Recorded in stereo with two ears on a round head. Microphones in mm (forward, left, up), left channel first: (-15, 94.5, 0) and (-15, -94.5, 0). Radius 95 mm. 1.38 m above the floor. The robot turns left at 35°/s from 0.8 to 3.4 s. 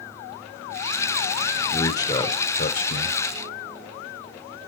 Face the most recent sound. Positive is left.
turn(degrees=110)